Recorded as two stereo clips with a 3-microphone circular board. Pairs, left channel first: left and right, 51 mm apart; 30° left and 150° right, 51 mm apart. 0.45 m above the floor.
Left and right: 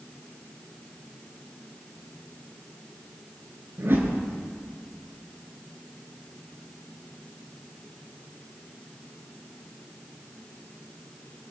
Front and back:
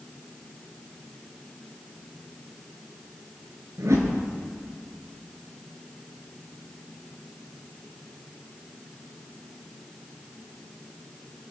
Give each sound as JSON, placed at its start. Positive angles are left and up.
{"t": 3.8, "sound": "a whoosh", "azimuth_deg": -135, "distance_m": 3.0}